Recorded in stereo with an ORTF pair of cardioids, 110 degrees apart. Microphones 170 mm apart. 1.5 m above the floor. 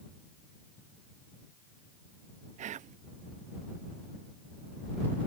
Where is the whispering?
45° right.